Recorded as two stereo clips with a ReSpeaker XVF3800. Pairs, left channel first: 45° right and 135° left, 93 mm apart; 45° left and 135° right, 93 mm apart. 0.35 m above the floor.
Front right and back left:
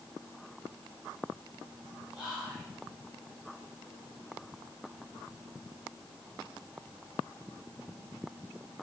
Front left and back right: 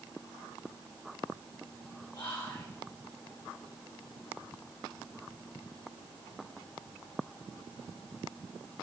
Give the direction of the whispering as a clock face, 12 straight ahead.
10 o'clock.